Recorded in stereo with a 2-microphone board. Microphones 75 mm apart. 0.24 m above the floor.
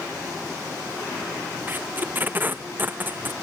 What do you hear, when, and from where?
1.7 s tape being pulled: 25° right (ahead or behind)